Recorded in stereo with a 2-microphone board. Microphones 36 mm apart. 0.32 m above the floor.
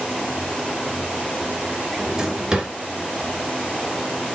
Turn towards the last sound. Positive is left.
turn(degrees=-15)  # may be behind; listen again after turning